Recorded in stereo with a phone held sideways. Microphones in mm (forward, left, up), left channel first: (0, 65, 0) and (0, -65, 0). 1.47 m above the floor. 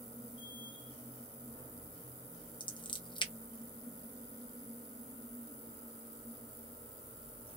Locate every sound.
0.0 s a machine running: 40° left (ahead or behind), 1.2 m
2.6 s scissors: 40° left (ahead or behind), 0.7 m